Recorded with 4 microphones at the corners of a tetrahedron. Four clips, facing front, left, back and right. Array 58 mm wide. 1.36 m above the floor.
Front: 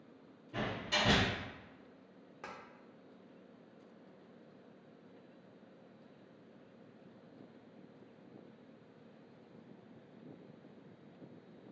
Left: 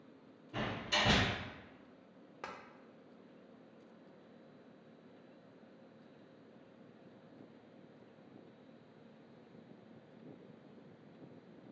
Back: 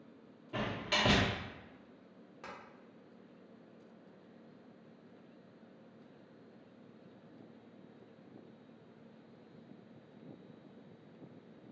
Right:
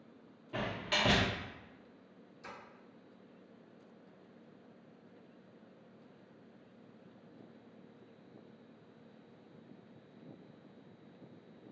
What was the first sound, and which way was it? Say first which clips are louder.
A door slam: right 1 dB, back 1 dB; 135° right.